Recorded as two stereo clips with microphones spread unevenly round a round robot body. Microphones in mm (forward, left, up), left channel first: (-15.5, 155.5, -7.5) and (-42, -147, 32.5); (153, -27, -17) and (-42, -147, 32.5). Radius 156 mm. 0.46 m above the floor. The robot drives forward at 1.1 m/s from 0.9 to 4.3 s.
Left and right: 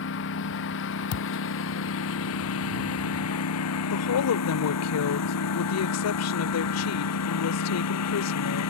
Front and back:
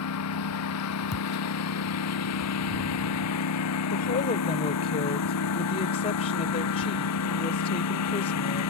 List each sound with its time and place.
0.0 s a lawn mower: 30° left; by 8.7 s 40° left
1.1 s a thud: 95° left; by 1.3 s 115° left
3.9 s a woman speaking: 65° left; by 8.7 s 90° left